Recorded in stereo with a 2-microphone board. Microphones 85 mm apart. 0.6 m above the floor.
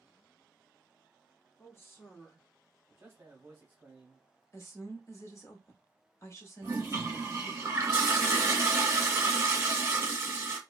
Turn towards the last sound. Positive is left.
turn(degrees=-35)  # may be behind; listen again after turning